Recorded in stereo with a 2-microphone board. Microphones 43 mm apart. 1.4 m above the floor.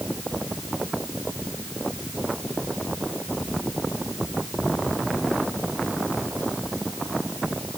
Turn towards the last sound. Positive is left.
No sound to turn to.